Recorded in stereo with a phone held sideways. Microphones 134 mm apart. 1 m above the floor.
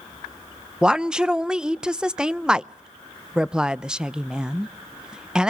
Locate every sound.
0.8 s a woman speaking: 5° right (ahead or behind), 0.5 m